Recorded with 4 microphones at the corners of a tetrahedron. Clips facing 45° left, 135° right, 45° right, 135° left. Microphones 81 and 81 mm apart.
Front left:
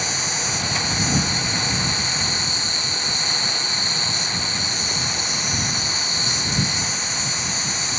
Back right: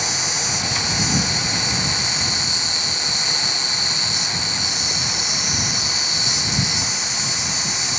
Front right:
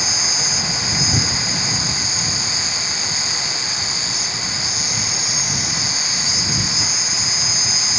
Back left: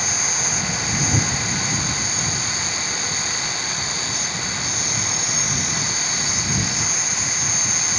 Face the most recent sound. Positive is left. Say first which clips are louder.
# even, even
turn(degrees=95)